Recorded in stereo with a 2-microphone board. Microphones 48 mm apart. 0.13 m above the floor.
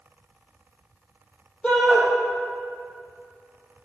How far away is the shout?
About 3.5 m.